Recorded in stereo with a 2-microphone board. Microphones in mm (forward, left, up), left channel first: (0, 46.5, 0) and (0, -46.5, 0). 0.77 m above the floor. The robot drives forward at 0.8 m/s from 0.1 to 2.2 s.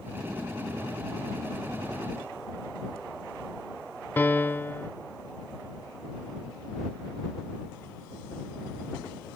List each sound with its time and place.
4.2 s a piano: 25° left (ahead or behind)